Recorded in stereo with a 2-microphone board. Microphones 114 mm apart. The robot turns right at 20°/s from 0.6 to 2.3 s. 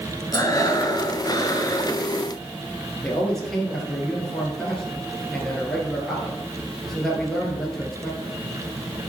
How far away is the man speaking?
About 2 m.